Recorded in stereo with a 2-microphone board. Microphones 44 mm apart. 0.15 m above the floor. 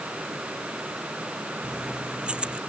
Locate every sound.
1.6 s keys jangling: 20° right (ahead or behind)